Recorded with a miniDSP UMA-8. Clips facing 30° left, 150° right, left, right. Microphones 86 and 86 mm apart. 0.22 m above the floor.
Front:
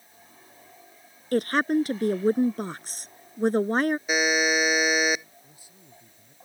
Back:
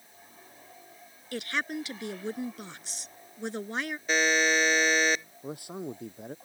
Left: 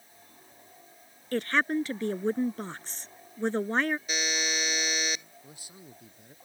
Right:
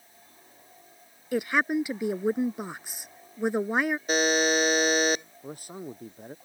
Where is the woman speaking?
10° right.